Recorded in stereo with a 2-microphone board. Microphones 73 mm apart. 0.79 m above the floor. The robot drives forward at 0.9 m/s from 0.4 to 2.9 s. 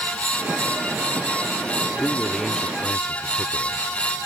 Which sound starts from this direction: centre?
A man speaking, at 2.0 s.